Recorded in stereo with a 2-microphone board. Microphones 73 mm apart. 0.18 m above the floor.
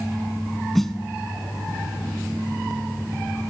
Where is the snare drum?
5° left (ahead or behind), 0.8 m.